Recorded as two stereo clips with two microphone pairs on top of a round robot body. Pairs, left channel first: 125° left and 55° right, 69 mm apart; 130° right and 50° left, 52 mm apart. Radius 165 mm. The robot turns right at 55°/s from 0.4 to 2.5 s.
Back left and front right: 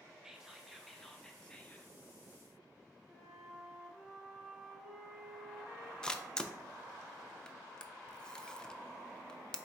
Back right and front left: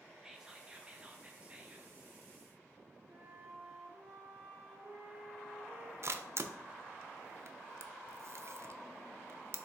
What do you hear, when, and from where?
0.2 s whispering: 15° right, 0.8 m; by 1.9 s 70° left, 0.8 m
3.1 s a flute: 25° left, 1.5 m
6.0 s a camera shutter: 40° left, 0.6 m